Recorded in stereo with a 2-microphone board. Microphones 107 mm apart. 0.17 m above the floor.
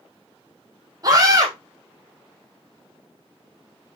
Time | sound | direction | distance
1.0 | a scream | 35° right (ahead or behind) | 5.5 m